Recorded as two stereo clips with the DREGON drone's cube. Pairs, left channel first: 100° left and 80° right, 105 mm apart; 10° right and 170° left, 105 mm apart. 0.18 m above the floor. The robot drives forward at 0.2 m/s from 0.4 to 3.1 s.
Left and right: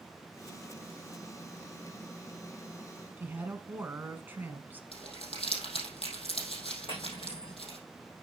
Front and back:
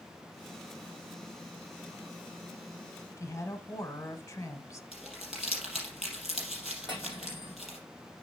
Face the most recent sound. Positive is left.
turn(degrees=125)